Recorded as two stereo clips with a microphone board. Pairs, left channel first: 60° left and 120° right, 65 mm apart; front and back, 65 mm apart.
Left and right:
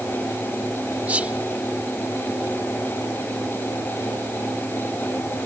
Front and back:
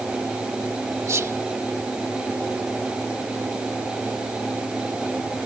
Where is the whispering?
Straight behind.